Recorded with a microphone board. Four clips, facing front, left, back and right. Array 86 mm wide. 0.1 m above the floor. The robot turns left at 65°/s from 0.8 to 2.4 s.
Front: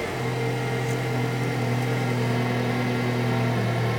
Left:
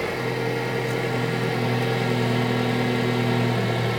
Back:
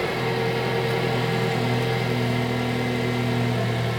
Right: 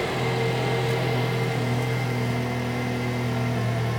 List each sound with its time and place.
0.0 s an engine running: 135° right, 2.5 m; by 4.0 s 120° left, 2.5 m